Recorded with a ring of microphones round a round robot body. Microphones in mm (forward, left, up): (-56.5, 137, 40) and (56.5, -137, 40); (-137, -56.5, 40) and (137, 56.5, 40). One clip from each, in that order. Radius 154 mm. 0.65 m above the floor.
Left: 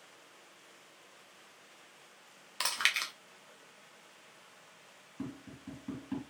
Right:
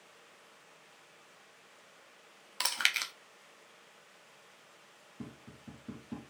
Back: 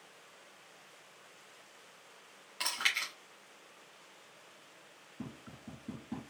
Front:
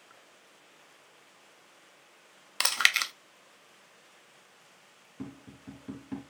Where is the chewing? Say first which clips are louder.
Even, front 8 dB; 10° left, 0.6 m.